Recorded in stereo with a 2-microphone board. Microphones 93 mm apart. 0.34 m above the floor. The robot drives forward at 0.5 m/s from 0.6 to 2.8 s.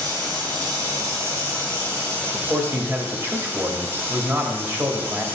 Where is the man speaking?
25° right (ahead or behind), 1.0 m.